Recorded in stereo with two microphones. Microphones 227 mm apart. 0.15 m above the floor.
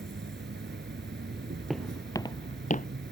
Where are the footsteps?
Centre (ahead or behind); by 2.9 s 40° left (ahead or behind).